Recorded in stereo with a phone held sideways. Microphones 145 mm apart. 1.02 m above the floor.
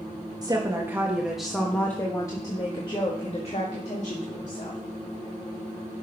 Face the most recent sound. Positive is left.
turn(degrees=60)  # may be behind; listen again after turning